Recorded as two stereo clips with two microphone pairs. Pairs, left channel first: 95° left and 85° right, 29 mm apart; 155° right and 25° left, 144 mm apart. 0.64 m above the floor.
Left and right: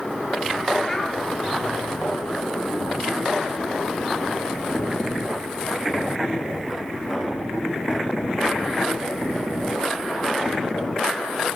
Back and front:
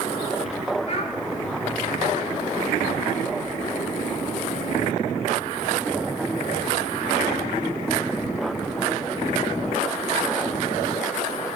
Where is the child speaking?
165° left, 1.5 m.